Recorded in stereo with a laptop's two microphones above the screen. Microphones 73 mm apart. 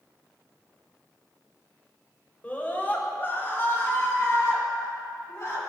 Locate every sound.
2.4 s a scream: 25° left (ahead or behind), 4.5 m; by 5.6 s 50° left (ahead or behind), 8.5 m